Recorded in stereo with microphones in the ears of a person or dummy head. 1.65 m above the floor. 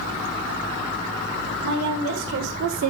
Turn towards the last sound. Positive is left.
turn(degrees=-85)